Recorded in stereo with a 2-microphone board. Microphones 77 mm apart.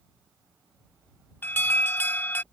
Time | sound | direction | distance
1.4 | an alarm | 25° left (ahead or behind) | ?